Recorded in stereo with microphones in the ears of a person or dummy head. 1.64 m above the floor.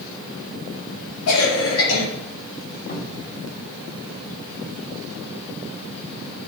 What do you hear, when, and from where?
1.3 s a cough: 85° left, 3.5 m
2.9 s a cupboard door: 50° left (ahead or behind), 2.5 m